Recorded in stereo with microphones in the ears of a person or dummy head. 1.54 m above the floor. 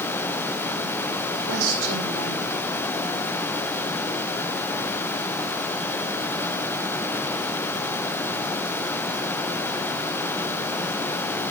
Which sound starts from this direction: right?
A woman speaking, at 1.3 s.